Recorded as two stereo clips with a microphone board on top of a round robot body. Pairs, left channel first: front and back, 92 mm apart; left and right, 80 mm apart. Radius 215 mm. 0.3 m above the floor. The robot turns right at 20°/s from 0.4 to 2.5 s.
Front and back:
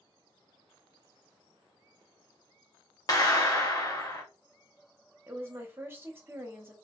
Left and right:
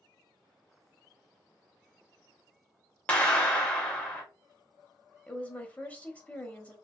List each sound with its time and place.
3.1 s a clap: 25° left, 1.5 m
5.3 s a woman speaking: 145° left, 1.1 m